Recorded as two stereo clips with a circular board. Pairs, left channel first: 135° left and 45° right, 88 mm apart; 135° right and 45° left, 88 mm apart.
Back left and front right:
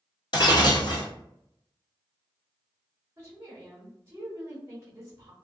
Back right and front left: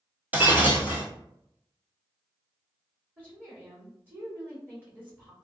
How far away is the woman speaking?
About 1.2 m.